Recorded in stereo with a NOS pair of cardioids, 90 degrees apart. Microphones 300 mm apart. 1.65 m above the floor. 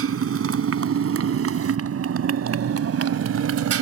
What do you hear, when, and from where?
0.0 s a motorcycle: 50° right; by 3.8 s 65° right